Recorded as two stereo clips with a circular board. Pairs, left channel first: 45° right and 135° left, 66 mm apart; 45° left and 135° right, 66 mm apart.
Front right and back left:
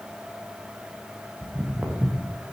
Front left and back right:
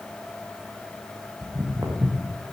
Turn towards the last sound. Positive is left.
turn(degrees=-170)